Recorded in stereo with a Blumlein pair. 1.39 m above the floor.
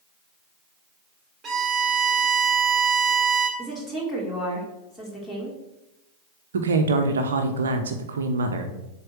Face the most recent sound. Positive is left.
turn(degrees=-65)